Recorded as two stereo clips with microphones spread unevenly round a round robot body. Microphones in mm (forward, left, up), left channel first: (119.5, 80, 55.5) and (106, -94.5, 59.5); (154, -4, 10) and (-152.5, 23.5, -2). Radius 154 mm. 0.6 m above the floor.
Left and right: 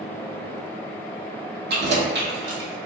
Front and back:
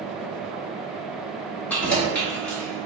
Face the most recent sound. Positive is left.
turn(degrees=-95)